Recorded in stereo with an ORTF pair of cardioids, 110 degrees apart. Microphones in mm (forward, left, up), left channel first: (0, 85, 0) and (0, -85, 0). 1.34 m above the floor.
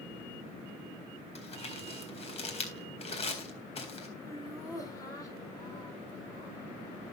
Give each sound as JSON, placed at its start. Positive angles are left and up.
{"t": 1.4, "sound": "crumpling", "azimuth_deg": 40, "distance_m": 4.0}
{"t": 4.2, "sound": "laughter", "azimuth_deg": 20, "distance_m": 4.5}